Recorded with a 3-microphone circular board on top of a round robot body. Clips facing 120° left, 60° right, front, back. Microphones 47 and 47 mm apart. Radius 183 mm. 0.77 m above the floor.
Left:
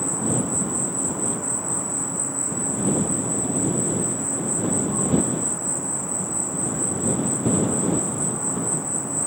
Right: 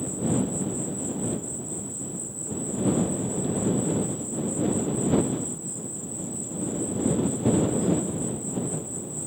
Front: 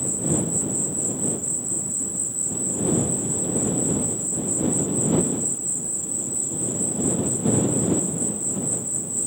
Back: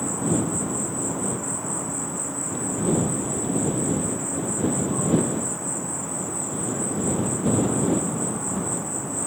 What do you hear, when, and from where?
0.0 s an insect: 145° left